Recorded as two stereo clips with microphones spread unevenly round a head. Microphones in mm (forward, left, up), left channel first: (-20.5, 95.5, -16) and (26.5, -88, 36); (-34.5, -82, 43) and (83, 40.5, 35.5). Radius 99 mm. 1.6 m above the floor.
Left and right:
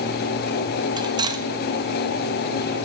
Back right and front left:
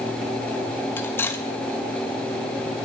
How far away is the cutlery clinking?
About 0.9 m.